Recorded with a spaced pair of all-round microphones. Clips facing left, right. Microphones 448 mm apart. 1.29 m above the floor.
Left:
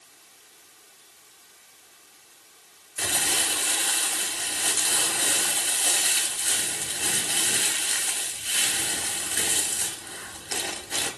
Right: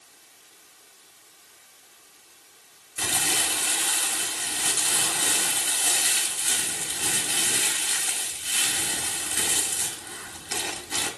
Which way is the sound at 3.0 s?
20° right (ahead or behind).